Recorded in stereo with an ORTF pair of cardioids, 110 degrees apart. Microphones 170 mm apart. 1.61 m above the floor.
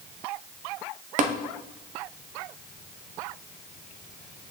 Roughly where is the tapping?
Ahead right.